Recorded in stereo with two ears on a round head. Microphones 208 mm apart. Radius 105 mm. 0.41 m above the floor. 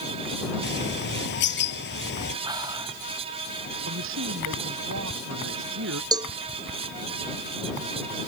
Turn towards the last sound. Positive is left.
turn(degrees=-20)  # may be behind; listen again after turning